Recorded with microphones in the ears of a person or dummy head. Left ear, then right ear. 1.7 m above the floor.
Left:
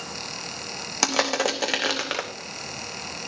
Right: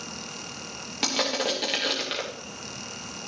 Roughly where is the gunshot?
No gunshot in this recording.